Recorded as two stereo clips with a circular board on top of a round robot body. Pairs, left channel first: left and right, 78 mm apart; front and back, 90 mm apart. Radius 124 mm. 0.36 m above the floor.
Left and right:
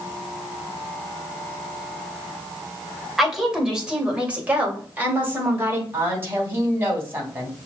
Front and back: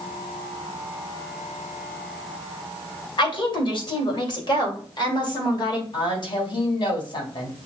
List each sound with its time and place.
3.2 s a woman speaking: 5° right, 2.5 m; by 5.8 s 30° right, 3 m
5.9 s a woman speaking: 30° right, 3 m